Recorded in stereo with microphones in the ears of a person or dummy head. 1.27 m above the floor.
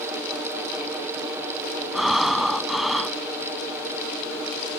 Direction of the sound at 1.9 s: 5° left (ahead or behind).